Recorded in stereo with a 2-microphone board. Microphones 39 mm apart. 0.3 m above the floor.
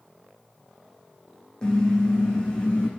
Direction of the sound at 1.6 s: 20° left (ahead or behind).